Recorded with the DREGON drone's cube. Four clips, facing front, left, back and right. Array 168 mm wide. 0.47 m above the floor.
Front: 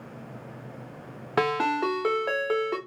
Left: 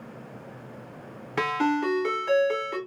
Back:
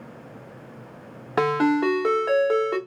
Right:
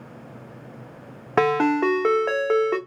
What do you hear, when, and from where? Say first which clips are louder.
1.4 s a ringtone: right 6 dB, back 4 dB; 85° right, 0.7 m